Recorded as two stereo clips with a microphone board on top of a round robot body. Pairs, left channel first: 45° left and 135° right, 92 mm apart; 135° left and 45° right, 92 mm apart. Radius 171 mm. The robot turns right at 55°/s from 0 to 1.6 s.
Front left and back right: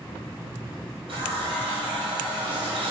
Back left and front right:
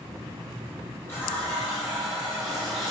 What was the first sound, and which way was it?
A running tap, 160° right.